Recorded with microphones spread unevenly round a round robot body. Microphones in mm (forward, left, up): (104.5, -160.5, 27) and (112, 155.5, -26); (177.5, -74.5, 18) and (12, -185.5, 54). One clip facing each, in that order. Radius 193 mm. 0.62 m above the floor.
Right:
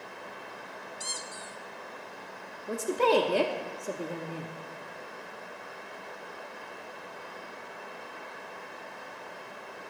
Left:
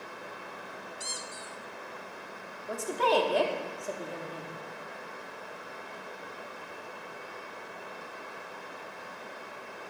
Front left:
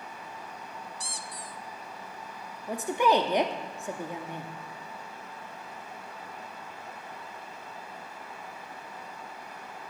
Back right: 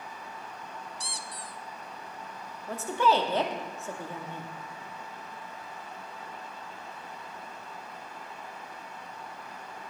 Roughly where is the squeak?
Behind right.